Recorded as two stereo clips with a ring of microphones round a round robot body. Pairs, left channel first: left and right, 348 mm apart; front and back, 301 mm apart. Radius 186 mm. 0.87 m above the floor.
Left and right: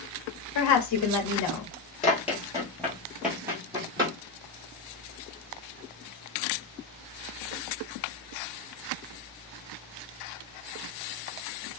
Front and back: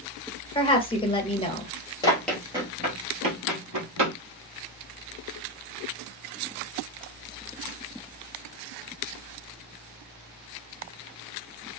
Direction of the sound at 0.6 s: 70° left.